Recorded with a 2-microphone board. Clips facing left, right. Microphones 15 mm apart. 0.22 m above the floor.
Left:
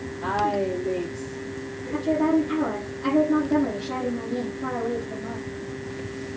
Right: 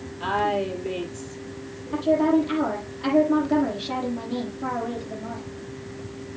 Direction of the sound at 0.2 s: 75° right (ahead or behind).